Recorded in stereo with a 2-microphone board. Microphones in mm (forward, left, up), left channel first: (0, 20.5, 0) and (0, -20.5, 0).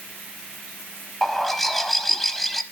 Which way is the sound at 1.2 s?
5° left (ahead or behind).